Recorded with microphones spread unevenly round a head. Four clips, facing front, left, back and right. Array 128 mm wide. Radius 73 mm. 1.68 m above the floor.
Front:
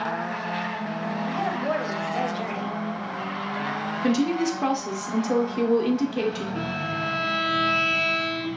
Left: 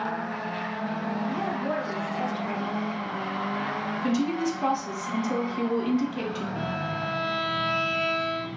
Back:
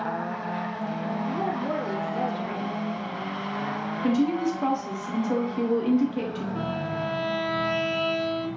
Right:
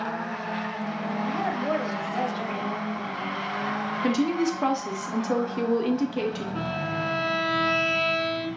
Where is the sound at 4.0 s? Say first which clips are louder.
Right 2 dB, front 1 dB; 50° right, 0.9 m.